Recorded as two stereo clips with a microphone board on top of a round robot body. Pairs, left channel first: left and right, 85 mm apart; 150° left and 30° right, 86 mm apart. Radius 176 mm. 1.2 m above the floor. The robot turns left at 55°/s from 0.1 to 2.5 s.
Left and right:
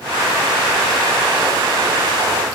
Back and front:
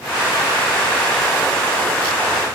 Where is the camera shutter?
I don't hear a camera shutter.